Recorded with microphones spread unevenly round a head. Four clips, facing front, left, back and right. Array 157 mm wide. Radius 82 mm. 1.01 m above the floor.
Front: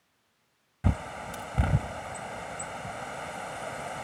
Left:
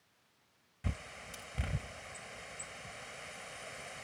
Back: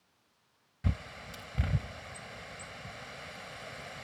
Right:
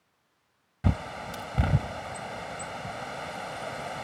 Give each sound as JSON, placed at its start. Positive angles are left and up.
{"t": 0.8, "sound": "a bird", "azimuth_deg": -55}